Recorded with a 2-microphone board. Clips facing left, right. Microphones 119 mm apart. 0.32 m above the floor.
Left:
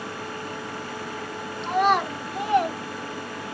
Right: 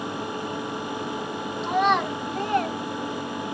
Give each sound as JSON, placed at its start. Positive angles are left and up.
{"t": 1.6, "sound": "a child speaking", "side_deg": 0, "distance_m": 2.0}